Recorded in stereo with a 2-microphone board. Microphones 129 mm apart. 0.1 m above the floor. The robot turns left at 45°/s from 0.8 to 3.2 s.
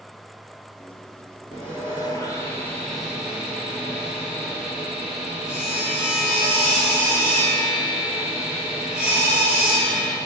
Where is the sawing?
65° left, 2.5 m; by 10.2 s 10° right, 2.5 m.